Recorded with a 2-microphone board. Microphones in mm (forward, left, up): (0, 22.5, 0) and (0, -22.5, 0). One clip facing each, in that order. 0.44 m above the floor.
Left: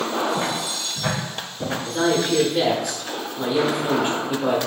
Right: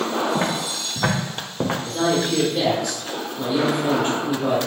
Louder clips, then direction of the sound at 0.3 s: Right 1 dB; 35° right (ahead or behind).